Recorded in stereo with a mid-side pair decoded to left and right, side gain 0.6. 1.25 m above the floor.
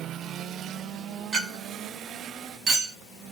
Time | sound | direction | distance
1.3 | a clink | 45° right | 1.3 m